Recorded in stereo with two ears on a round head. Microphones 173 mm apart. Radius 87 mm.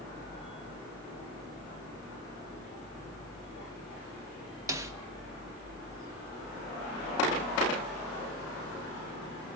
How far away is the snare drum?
About 1.0 m.